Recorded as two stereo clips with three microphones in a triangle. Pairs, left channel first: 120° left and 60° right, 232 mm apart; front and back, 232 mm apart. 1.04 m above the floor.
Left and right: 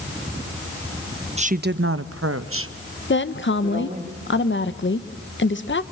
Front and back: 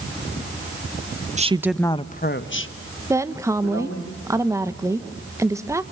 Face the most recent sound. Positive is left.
turn(degrees=105)